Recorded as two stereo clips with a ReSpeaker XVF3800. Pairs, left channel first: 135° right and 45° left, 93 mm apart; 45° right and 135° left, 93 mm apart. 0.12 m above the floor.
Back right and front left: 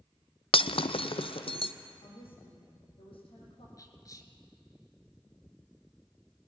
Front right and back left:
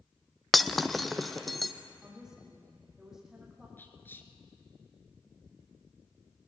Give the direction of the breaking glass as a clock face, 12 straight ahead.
4 o'clock.